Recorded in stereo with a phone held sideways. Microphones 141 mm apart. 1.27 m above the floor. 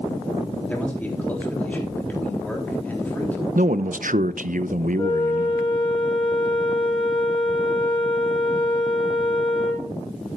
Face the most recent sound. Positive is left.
turn(degrees=40)  # may be behind; listen again after turning